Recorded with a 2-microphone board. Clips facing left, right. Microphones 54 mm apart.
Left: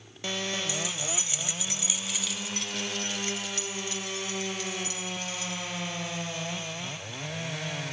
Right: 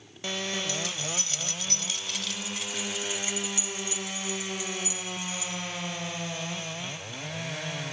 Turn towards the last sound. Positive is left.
turn(degrees=-15)  # may be behind; listen again after turning